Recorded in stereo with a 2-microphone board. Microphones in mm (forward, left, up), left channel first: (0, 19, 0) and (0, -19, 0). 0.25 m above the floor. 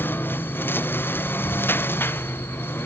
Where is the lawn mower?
55° left (ahead or behind); by 2.9 s 65° left (ahead or behind).